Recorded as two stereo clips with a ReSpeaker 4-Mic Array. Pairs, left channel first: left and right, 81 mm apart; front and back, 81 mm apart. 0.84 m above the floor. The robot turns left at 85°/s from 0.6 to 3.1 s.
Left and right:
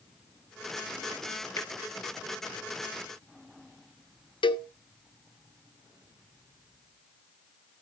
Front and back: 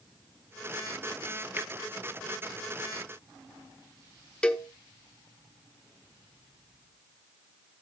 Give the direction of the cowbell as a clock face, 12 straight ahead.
9 o'clock.